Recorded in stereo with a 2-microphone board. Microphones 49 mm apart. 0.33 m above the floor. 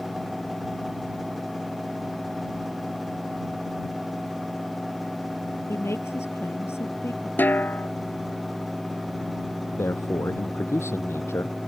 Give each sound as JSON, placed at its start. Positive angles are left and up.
{"t": 5.7, "sound": "a woman speaking", "side_deg": 60}
{"t": 7.4, "sound": "a snare drum", "side_deg": 40}
{"t": 9.8, "sound": "a man speaking", "side_deg": 65}